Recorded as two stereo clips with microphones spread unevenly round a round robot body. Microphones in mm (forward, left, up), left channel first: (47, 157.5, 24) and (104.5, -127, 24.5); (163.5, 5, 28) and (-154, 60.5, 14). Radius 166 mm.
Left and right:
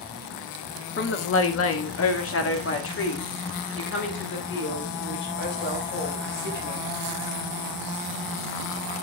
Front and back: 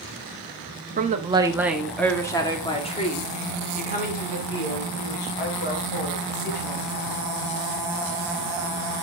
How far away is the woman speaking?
About 1.1 m.